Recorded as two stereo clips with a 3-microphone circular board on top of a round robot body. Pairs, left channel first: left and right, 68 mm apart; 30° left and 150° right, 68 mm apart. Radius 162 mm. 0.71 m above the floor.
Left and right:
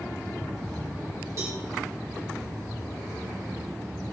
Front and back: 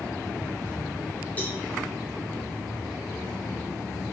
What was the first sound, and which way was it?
A cowbell, 40° right.